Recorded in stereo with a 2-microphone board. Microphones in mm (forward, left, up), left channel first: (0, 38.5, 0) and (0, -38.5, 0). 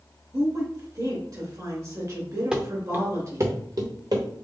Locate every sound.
0.3 s a woman speaking: 45° right (ahead or behind), 2.5 m
2.5 s running footsteps: 10° right (ahead or behind), 1.0 m; by 4.2 s 65° right (ahead or behind), 1.4 m